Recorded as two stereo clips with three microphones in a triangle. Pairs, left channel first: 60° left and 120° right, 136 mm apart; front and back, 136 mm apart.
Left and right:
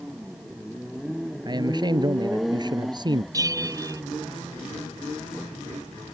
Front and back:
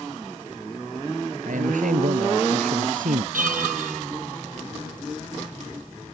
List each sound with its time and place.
1.4 s a man speaking: 175° right
3.3 s a bell: 175° left